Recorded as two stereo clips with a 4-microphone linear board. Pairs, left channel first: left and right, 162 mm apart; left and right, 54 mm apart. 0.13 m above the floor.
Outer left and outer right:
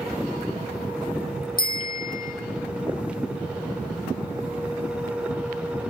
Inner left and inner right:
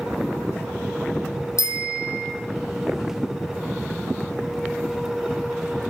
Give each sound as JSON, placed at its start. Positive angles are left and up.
{"t": 1.6, "sound": "a bicycle bell", "side_deg": 65, "distance_m": 3.5}